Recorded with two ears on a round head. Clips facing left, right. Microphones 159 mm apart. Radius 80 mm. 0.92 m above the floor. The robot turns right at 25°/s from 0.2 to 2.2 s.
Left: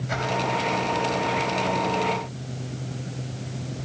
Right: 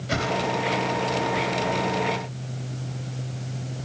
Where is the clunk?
I don't hear a clunk.